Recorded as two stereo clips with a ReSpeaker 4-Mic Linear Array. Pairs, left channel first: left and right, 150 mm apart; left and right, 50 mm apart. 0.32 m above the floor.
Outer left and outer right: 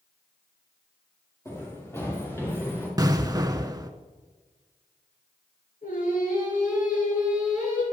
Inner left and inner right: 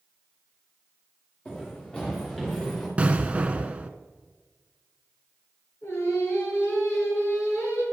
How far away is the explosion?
About 0.6 m.